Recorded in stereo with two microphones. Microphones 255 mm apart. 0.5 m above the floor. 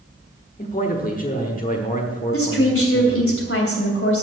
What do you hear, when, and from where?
0.6 s a man speaking: 35° left (ahead or behind), 1.2 m
2.3 s a woman speaking: 55° left (ahead or behind), 3 m